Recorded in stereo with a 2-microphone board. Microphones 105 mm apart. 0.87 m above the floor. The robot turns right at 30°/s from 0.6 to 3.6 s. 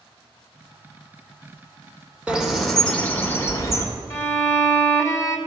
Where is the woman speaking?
No woman speaking in this recording.